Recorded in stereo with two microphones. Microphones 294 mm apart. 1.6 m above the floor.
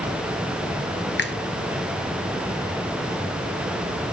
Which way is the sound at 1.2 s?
35° left (ahead or behind).